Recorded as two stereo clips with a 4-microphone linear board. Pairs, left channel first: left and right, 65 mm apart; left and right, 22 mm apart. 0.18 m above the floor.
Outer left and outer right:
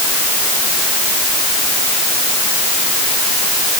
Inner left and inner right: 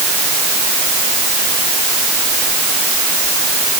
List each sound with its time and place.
Only background noise.